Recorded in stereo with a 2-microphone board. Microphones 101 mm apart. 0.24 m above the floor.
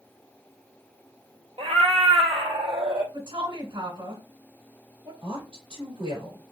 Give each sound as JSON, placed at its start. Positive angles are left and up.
{"t": 1.6, "sound": "a cat meowing", "side_deg": -65, "distance_m": 0.5}
{"t": 3.1, "sound": "a woman speaking", "side_deg": -60, "distance_m": 3.0}
{"t": 5.2, "sound": "a woman speaking", "side_deg": -60, "distance_m": 3.0}